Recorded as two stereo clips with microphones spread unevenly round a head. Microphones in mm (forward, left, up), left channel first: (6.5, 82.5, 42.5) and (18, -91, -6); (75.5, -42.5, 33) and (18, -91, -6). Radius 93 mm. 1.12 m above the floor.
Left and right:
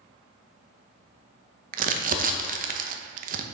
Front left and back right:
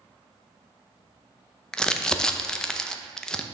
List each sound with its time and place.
1.7 s crumpling: 45° right, 0.7 m